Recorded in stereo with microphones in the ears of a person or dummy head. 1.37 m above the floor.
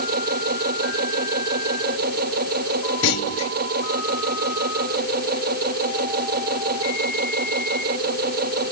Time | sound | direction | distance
0.0 | a machine running | 50° right (ahead or behind) | ?
3.0 | a clunk | 85° left | ?